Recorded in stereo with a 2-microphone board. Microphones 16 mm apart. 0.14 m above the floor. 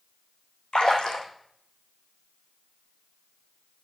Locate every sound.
0.7 s a splash: 85° left, 2 m